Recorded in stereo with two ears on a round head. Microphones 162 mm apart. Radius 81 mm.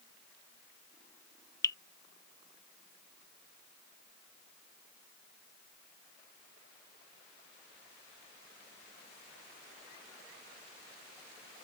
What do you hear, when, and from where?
1.6 s dripping: 20° left (ahead or behind)